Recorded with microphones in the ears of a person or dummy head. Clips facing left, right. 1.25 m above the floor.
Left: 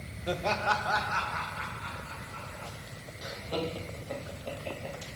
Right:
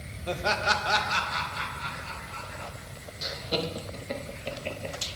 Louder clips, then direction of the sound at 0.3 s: Right 1 dB; 10° left (ahead or behind).